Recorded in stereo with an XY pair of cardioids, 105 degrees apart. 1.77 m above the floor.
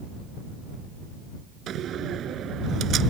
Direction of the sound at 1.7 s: 65° right.